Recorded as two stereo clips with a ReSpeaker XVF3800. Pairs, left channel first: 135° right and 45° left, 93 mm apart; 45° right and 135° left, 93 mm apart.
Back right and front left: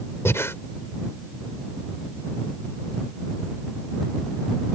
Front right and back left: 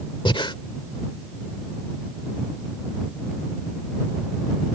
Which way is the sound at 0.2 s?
75° right.